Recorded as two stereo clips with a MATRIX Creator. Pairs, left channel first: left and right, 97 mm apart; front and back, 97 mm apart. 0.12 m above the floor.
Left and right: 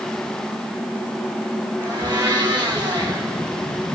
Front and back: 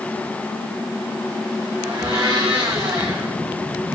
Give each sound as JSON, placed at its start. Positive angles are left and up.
{"t": 1.8, "sound": "a blender", "azimuth_deg": -130, "distance_m": 2.5}